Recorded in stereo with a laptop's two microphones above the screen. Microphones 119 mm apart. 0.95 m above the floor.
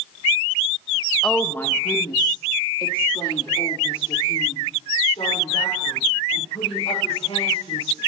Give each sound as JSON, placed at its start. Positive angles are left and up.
{"t": 1.2, "sound": "a woman speaking", "side_deg": 5, "distance_m": 0.7}